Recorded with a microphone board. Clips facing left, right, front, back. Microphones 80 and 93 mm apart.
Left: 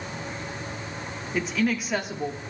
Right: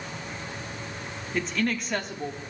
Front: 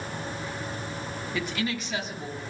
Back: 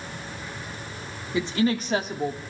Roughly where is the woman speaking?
Behind.